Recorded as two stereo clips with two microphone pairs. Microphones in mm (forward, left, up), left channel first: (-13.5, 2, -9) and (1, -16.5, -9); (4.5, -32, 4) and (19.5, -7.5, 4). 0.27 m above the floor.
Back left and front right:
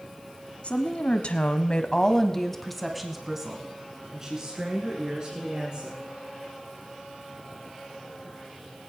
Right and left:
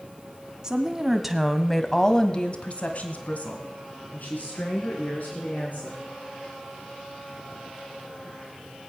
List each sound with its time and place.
0.6 s a woman speaking: 120° left, 1.8 m; by 6.0 s 105° right, 4 m